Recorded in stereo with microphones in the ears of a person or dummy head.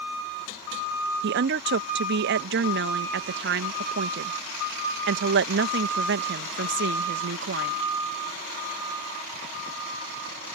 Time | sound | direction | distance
1.2 | a woman speaking | 55° right (ahead or behind) | ?